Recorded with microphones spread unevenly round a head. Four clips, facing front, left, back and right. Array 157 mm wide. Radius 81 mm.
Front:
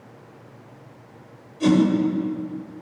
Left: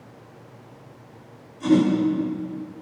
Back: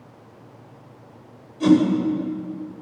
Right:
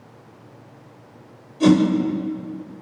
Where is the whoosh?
85° right, 6 m.